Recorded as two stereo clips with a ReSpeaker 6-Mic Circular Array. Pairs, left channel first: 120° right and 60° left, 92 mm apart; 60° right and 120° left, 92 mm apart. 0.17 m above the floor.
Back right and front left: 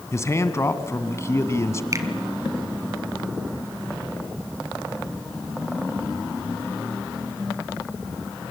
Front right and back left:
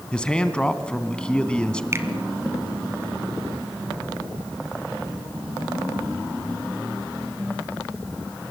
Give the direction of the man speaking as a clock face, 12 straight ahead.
4 o'clock.